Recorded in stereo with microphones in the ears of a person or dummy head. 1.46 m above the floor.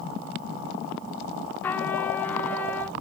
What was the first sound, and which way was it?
A trumpet, 15° left (ahead or behind).